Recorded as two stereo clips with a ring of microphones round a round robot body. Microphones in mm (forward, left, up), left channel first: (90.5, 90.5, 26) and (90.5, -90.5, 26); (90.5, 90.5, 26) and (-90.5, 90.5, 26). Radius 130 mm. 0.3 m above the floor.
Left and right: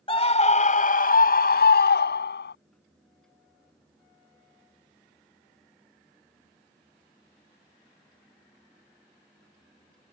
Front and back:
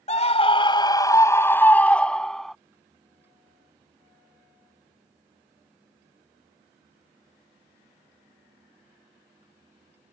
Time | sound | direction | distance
0.1 | a scream | 40° left | ?